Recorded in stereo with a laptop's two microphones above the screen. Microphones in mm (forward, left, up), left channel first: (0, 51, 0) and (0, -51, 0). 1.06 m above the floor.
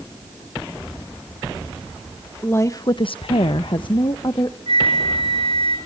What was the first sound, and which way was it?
A woman speaking, 20° left (ahead or behind).